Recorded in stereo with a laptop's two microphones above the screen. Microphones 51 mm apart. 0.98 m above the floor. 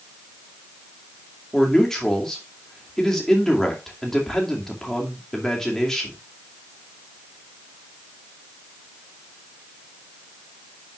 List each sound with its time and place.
1.5 s a man speaking: 10° left (ahead or behind), 2.5 m